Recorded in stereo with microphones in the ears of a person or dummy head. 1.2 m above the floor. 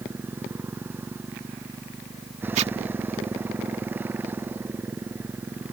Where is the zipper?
40° right (ahead or behind).